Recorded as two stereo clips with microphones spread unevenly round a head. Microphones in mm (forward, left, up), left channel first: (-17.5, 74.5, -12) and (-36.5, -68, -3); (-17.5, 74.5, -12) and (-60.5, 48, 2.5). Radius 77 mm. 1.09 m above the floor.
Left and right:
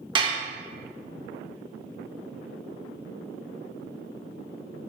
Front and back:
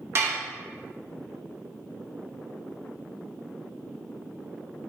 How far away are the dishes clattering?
About 0.5 m.